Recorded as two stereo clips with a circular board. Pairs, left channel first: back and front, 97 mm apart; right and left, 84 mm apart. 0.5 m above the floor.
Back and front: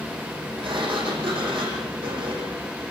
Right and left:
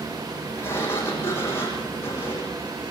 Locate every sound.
0.6 s a sliding door: 30° right, 6.5 m